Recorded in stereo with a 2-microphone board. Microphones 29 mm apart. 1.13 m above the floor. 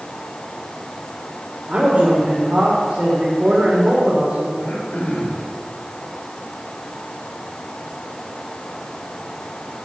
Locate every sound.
1.7 s a man speaking: 45° right (ahead or behind), 3.5 m
4.6 s throat clearing: 60° left (ahead or behind), 3 m